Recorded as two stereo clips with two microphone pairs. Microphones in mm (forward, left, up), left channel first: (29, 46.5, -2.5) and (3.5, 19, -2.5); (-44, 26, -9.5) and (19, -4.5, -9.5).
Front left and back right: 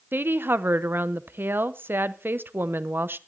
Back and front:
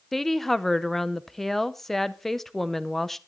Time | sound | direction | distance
0.1 | a woman speaking | 120° right | 0.7 m